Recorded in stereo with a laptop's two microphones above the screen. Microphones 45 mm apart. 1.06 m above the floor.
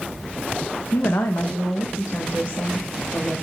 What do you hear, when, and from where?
0.9 s a woman speaking: 65° left (ahead or behind), 0.5 m; by 3.4 s 75° left (ahead or behind), 1.7 m